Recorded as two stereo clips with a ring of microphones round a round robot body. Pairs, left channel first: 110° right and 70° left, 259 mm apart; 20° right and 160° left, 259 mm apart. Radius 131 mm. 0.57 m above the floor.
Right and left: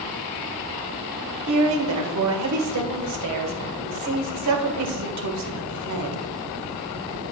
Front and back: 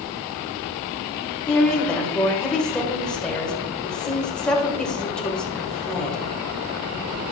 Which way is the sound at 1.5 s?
65° left.